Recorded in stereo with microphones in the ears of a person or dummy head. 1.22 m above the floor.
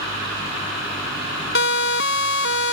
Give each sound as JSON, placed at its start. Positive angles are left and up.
{"t": 1.6, "sound": "a siren", "side_deg": 65}